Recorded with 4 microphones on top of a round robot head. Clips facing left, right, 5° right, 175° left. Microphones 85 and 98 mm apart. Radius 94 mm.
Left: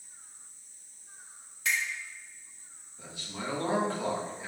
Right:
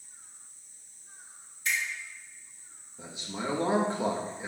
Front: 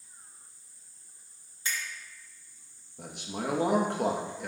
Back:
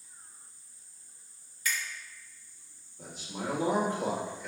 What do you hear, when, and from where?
1.6 s a finger snap: 60° left, 3 m
3.0 s a man speaking: 20° right, 1.3 m